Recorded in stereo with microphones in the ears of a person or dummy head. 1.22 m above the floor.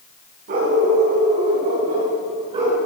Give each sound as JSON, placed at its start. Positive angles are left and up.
{"t": 0.5, "sound": "a dog barking", "side_deg": -45, "distance_m": 3.5}